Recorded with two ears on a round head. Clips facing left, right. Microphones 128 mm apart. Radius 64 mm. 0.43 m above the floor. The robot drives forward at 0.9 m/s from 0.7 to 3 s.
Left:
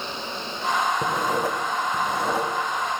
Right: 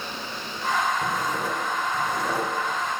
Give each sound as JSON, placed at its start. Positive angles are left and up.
{"t": 1.0, "sound": "writing", "side_deg": 45, "distance_m": 0.9}